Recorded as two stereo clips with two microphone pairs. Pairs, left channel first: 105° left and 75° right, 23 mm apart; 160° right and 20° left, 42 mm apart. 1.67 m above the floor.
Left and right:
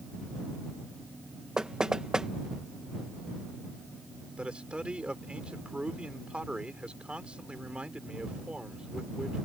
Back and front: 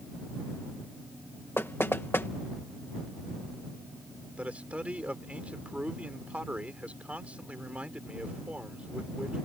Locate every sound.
1.6 s knocking: 130° right
4.4 s a man speaking: 35° right